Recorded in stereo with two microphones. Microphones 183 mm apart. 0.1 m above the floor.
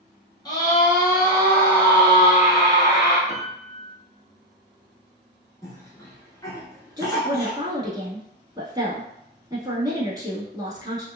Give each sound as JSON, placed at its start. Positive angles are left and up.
{"t": 0.5, "sound": "a scream", "side_deg": 25, "distance_m": 1.3}
{"t": 3.3, "sound": "a piano", "side_deg": -45, "distance_m": 1.2}
{"t": 5.6, "sound": "a cough", "side_deg": 20, "distance_m": 1.1}
{"t": 7.0, "sound": "a woman speaking", "side_deg": -20, "distance_m": 1.1}